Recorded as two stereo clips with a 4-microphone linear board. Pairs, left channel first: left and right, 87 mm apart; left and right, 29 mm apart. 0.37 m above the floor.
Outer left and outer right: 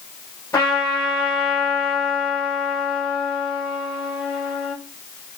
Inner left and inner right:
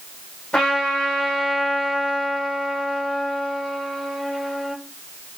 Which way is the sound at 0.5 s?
25° left (ahead or behind).